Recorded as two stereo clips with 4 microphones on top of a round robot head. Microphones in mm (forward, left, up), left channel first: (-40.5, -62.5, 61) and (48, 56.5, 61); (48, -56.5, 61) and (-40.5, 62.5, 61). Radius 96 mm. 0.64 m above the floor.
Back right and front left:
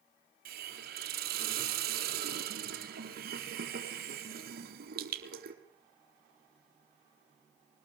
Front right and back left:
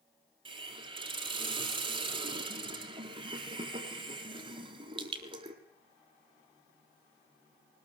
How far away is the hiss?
About 3.5 m.